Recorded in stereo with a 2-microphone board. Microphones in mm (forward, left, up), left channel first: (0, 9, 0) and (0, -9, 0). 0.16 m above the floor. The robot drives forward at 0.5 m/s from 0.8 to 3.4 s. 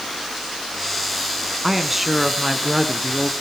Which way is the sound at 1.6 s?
15° right (ahead or behind).